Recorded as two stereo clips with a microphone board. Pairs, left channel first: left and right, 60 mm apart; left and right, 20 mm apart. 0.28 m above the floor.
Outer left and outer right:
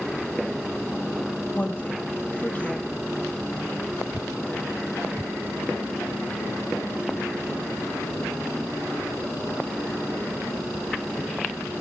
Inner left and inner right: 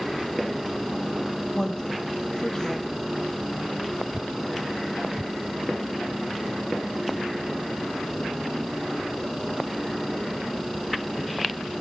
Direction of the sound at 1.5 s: 25° left (ahead or behind).